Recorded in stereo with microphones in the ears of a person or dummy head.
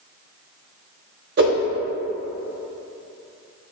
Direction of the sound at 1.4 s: 60° right (ahead or behind).